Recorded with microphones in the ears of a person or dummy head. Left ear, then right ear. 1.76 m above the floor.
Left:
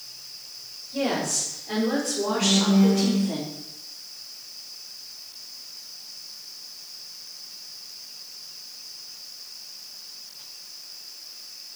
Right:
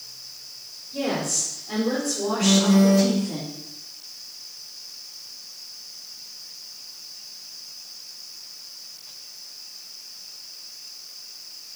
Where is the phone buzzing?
55° right (ahead or behind), 1.6 m.